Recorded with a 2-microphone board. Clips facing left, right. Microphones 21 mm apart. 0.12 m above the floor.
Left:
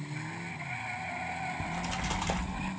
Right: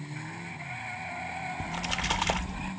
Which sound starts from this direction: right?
A splash, at 1.6 s.